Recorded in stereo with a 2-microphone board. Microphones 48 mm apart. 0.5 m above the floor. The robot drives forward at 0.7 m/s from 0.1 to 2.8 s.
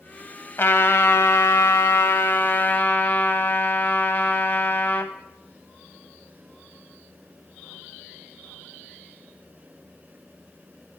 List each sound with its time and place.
0.6 s a trumpet: 50° left (ahead or behind), 1.1 m; by 5.1 s 40° left (ahead or behind), 1.2 m